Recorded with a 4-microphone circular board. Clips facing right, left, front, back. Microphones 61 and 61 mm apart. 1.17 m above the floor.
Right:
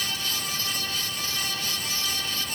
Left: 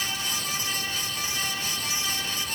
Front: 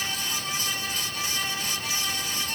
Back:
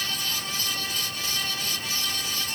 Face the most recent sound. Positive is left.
No sound to turn to.